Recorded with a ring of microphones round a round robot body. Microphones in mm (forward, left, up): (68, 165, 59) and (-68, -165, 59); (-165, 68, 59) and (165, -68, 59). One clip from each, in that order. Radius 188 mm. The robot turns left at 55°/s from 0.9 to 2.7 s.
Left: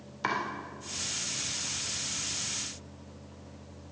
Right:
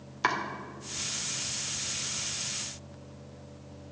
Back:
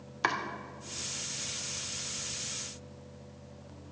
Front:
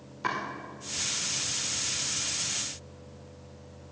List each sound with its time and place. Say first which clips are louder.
0.2 s chopping: right 3 dB, back 1 dB; 175° right, 2 m